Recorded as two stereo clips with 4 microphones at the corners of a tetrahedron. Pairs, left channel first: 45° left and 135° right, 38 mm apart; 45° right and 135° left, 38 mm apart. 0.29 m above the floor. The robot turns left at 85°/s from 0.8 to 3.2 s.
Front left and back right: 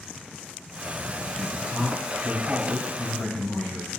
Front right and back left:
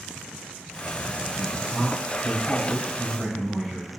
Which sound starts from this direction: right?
A man speaking, at 1.4 s.